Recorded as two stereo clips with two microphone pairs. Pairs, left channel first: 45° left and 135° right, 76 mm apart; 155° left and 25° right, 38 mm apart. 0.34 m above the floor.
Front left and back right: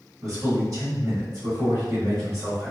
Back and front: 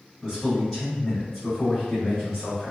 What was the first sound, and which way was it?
A man speaking, 120° right.